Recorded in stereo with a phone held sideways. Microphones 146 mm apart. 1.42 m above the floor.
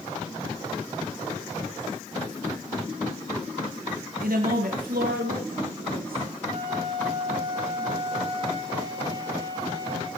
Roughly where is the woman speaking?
Right.